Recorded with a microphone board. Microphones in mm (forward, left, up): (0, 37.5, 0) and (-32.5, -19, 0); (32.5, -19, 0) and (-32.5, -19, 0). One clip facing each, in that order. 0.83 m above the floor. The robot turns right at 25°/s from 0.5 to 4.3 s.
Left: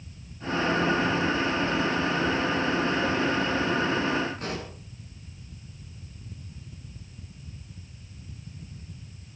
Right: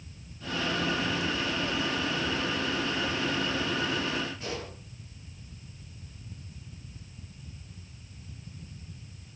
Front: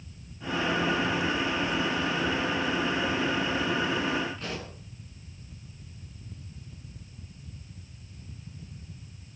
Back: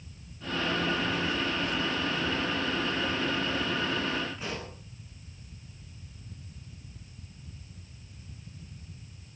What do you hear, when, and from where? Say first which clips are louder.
4.4 s a pop: left 3 dB, even; 95° left, 8 m